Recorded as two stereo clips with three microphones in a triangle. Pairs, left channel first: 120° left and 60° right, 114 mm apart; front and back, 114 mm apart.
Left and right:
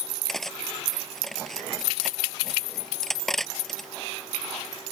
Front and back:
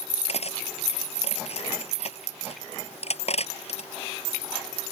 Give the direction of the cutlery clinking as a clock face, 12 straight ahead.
11 o'clock.